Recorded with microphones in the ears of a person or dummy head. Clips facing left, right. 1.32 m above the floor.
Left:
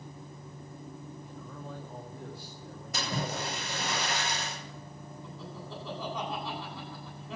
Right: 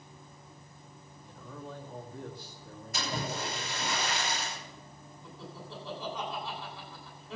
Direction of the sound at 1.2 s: 5° left (ahead or behind).